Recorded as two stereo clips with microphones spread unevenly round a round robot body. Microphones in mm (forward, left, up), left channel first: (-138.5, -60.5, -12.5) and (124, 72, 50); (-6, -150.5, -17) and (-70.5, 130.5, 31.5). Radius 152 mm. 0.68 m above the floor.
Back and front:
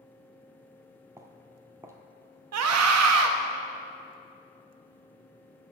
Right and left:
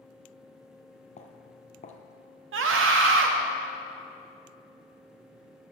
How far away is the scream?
About 0.7 m.